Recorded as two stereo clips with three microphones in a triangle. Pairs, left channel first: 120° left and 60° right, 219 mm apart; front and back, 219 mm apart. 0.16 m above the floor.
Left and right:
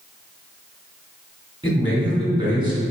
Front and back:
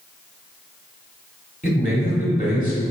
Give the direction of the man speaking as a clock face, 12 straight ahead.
12 o'clock.